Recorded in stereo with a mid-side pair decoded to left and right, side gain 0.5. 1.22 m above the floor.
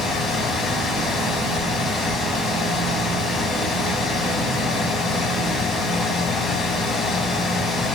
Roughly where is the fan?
Ahead left.